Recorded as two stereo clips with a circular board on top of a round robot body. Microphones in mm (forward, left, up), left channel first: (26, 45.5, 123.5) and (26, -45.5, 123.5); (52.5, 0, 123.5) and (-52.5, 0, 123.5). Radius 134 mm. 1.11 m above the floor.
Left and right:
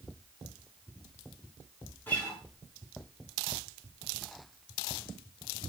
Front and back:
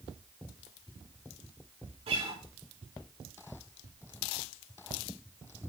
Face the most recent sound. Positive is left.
turn(degrees=160)